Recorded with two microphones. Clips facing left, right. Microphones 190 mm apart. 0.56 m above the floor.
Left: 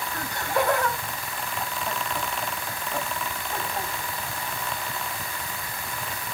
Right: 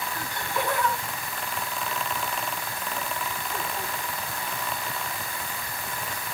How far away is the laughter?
About 3.5 m.